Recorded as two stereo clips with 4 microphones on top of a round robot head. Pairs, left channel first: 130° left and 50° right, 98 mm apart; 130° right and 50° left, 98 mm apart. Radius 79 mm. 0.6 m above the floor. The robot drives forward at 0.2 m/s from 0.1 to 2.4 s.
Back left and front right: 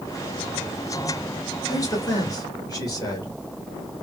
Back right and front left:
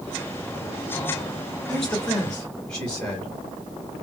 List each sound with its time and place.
1.7 s a man speaking: 145° left, 1.5 m; by 3.3 s 150° left, 1.6 m